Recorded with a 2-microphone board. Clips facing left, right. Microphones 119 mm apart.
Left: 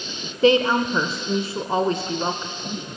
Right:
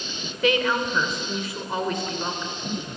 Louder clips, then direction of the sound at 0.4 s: Left 5 dB; 30° left (ahead or behind).